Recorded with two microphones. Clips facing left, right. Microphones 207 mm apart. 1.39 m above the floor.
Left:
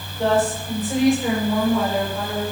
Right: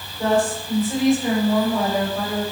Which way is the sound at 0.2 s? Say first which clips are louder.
Even; 25° left (ahead or behind).